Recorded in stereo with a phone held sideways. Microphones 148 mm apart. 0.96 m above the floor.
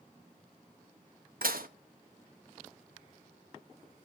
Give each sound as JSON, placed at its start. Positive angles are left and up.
{"t": 1.4, "sound": "dishes clattering", "side_deg": -80, "distance_m": 0.6}